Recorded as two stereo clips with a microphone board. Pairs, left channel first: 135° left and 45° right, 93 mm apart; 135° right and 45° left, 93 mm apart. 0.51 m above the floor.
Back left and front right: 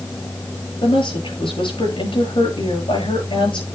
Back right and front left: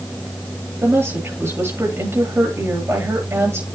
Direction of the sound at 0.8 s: 110° left.